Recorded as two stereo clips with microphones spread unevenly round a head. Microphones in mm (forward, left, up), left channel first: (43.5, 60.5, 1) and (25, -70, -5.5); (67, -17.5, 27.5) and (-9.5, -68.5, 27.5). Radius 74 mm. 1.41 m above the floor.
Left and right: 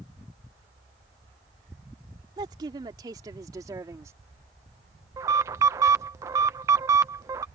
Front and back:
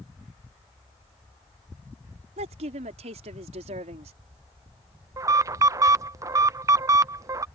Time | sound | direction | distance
2.4 | a woman speaking | 160° right | ?
5.2 | an alarm | 145° right | ?